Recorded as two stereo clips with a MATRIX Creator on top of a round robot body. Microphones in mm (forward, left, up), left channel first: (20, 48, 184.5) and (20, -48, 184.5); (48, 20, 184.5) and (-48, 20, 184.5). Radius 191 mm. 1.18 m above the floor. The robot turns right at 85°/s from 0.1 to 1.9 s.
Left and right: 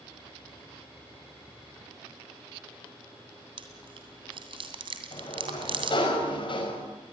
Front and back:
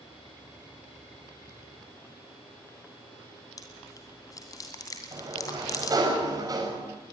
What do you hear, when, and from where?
3.6 s chewing: 60° right, 2 m
5.1 s a sliding door: 125° left, 6 m